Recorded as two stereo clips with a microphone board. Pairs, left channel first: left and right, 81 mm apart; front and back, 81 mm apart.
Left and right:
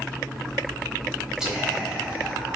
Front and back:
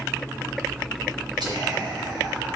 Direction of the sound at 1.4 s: 175° right.